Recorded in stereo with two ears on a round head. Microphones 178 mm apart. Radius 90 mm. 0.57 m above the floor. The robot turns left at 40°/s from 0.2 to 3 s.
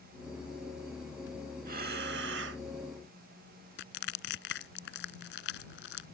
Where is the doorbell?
No doorbell in this recording.